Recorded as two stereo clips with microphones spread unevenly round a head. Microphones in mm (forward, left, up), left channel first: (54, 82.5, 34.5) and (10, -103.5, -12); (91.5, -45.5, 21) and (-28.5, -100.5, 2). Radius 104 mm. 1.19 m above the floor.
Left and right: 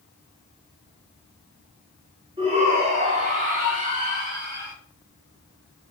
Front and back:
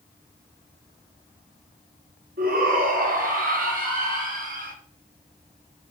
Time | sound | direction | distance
2.4 | a shout | 165° right | 4 m